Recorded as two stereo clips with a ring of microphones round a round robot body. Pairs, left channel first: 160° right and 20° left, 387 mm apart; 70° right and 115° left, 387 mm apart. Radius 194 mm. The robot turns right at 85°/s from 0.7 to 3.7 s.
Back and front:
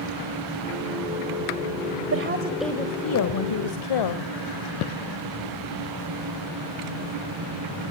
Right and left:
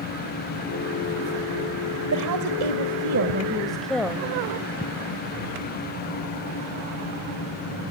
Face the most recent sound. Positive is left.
turn(degrees=-155)